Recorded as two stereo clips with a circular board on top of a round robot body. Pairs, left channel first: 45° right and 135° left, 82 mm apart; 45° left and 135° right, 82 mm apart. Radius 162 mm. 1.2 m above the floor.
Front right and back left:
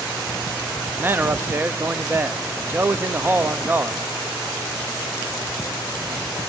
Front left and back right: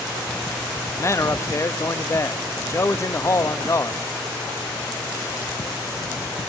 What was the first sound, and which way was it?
A man speaking, 80° left.